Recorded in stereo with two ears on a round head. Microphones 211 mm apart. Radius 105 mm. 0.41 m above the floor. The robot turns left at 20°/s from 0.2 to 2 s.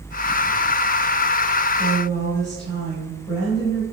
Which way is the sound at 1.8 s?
15° left (ahead or behind).